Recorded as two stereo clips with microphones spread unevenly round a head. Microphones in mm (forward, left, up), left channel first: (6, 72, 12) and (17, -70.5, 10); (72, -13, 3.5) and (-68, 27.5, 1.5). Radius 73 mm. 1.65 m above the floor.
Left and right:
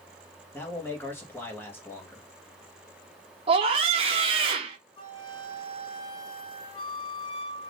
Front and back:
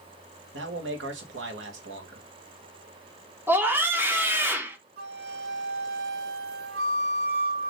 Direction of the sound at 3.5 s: 125° right.